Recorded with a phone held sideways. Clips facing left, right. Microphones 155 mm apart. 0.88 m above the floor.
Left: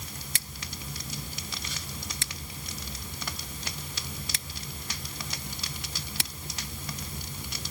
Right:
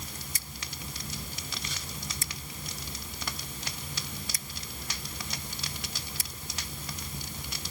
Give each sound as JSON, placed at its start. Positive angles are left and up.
{"t": 0.3, "sound": "scissors", "side_deg": 80}